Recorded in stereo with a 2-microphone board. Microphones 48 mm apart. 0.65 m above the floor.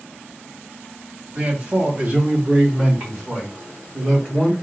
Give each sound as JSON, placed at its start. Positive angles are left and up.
{"t": 1.4, "sound": "a man speaking", "side_deg": -30, "distance_m": 1.4}